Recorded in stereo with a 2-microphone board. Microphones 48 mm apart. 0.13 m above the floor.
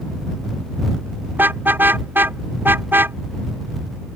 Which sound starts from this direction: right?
A car horn, at 1.4 s.